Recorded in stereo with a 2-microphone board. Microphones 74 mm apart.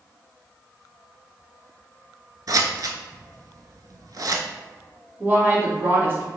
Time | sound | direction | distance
2.5 | scissors | 60° right (ahead or behind) | 0.5 m
5.2 | a woman speaking | 30° right (ahead or behind) | 1.1 m